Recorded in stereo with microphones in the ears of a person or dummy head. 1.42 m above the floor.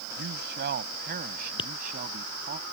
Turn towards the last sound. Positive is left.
turn(degrees=25)  # may be behind; listen again after turning